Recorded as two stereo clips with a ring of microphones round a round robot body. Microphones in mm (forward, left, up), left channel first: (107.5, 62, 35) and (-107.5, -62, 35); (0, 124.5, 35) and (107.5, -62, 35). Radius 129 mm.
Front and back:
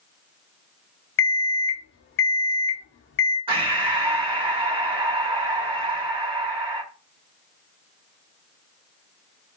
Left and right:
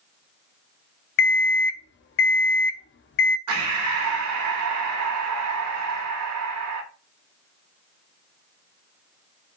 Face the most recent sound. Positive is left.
turn(degrees=-80)